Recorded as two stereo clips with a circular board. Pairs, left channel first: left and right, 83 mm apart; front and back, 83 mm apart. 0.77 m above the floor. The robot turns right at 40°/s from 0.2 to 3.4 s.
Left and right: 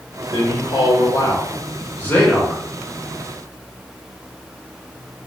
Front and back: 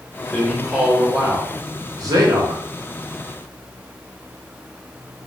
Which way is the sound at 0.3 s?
85° left.